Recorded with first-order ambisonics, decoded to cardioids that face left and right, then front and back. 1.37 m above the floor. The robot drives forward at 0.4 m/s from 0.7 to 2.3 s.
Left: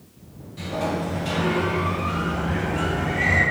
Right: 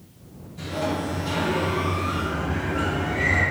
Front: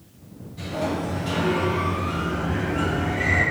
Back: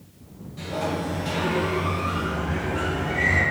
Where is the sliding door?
115° left, 1.4 m; by 3.4 s 135° left, 1.8 m.